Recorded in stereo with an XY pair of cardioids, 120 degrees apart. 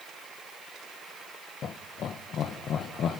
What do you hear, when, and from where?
1.6 s laughter: 55° left, 1.1 m